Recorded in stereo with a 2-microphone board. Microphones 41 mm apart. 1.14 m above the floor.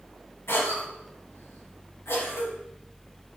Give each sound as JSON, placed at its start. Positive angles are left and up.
{"t": 0.5, "sound": "a cough", "side_deg": 85, "distance_m": 2.0}